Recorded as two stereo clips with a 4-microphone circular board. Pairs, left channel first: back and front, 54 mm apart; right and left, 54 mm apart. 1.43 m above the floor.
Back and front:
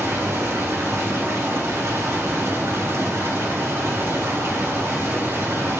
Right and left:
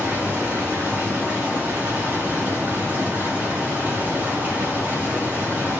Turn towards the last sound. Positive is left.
turn(degrees=30)